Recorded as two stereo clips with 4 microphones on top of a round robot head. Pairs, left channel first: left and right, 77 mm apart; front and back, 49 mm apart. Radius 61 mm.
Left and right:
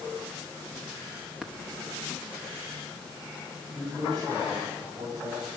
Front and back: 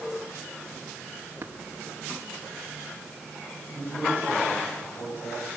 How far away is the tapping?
About 0.8 m.